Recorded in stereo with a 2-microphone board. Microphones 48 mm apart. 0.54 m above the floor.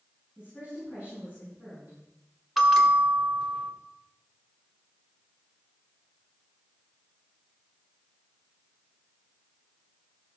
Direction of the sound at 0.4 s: 30° right (ahead or behind).